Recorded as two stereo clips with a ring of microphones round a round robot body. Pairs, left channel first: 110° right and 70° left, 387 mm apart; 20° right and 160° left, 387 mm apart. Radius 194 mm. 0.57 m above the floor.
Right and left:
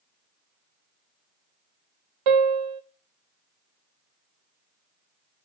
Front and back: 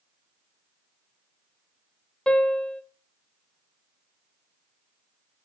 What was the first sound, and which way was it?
A piano, 65° left.